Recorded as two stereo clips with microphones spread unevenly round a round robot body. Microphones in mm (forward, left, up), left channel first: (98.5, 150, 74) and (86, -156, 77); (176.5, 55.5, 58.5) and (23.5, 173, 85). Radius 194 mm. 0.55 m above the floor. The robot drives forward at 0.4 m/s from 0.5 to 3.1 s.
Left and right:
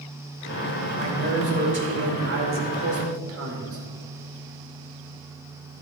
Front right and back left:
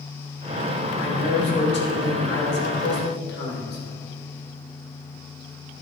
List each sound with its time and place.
0.9 s a man speaking: 40° right, 3 m; by 3.8 s 50° right, 2.5 m